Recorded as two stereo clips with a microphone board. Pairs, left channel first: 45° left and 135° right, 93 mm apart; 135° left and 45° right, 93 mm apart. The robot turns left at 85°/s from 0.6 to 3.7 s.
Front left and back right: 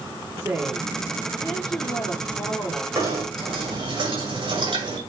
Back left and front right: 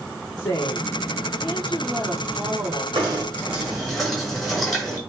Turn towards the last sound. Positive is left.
turn(degrees=-140)